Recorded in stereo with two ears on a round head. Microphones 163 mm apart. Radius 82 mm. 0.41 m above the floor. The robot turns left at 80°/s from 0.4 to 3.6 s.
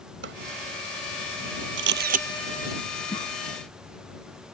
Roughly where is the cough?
Left.